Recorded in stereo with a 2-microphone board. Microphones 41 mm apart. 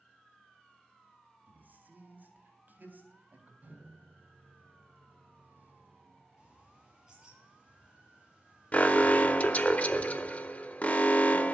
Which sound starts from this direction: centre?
A bird, at 6.4 s.